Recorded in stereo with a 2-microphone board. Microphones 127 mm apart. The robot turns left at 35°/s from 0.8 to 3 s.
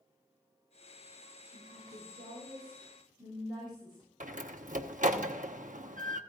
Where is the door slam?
85° right, 0.9 m.